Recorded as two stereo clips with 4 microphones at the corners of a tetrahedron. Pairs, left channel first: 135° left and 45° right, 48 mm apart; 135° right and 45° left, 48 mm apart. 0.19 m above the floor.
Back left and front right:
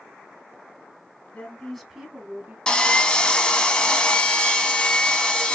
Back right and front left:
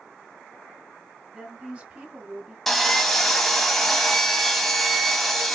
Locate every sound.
1.3 s a woman speaking: 100° left, 1.6 m; by 2.6 s 25° right, 1.8 m
2.7 s sawing: 150° left, 0.9 m